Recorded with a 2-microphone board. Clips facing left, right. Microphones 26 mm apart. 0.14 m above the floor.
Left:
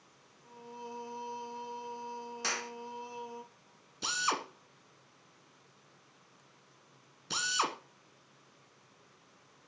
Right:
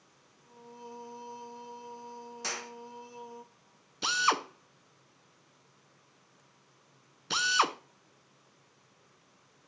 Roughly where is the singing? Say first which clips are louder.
Left 2 dB; left.